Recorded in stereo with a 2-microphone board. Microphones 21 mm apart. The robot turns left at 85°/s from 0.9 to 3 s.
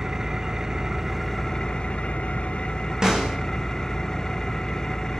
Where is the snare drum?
30° right (ahead or behind), 4 m.